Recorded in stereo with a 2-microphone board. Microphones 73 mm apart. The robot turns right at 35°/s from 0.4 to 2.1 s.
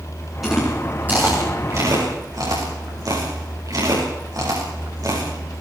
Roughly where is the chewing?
Centre.